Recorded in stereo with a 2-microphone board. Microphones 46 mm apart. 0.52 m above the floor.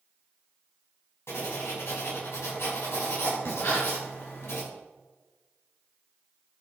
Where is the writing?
70° left (ahead or behind), 5 m.